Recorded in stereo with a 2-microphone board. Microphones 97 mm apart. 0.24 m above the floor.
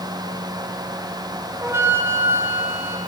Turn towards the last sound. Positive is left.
turn(degrees=-25)  # may be behind; listen again after turning